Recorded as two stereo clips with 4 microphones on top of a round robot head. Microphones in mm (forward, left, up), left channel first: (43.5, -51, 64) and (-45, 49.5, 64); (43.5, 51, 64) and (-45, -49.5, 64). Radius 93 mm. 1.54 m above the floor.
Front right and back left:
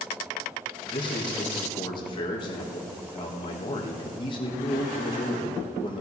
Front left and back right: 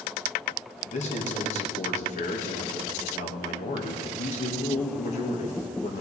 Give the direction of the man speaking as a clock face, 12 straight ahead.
12 o'clock.